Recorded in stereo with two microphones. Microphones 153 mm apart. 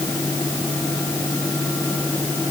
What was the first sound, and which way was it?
Only background noise.